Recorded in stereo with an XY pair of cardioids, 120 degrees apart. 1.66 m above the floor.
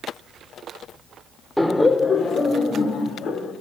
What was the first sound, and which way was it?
Laughter, straight ahead.